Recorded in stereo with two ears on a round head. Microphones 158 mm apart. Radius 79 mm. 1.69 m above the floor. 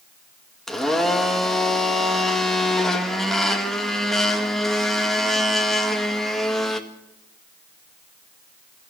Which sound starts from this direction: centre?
A blender, at 0.7 s.